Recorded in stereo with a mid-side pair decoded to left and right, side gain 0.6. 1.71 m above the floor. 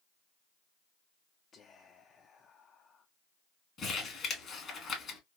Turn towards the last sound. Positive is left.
turn(degrees=40)